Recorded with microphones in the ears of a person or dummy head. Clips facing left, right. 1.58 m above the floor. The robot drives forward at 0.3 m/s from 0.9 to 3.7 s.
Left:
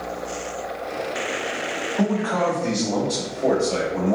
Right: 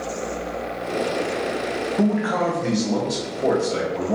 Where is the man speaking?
10° right (ahead or behind), 0.6 m; by 4.2 s 5° right (ahead or behind), 1.1 m.